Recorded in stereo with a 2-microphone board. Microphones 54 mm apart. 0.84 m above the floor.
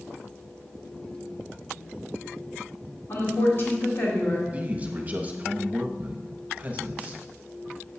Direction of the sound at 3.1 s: 50° left (ahead or behind).